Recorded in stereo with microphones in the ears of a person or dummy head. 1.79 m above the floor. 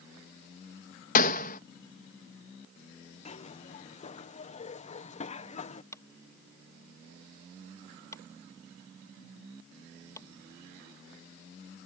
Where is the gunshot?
45° left (ahead or behind).